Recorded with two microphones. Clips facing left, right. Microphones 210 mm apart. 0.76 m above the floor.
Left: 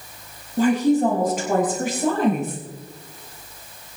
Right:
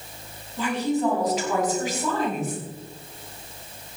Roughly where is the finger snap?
I don't hear a finger snap.